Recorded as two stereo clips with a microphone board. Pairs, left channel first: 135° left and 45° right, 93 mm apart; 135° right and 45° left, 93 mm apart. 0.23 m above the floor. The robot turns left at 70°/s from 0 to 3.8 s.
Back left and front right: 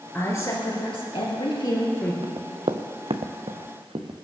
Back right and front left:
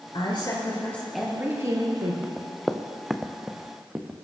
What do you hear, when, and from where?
0.1 s a woman speaking: 155° right, 4 m; by 2.1 s 65° left, 4 m
2.2 s running footsteps: 35° right, 1.7 m; by 4.2 s 25° right, 2 m